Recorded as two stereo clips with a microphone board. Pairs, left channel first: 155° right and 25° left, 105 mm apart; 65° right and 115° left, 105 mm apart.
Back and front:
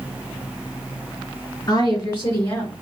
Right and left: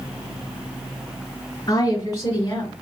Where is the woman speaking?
105° right, 2.5 m; by 2.7 s 90° right, 2 m.